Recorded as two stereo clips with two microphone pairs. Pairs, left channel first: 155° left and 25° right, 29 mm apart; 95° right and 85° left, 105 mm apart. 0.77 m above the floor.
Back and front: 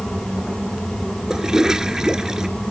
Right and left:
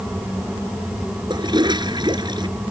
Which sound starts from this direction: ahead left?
A toilet flushing, at 1.3 s.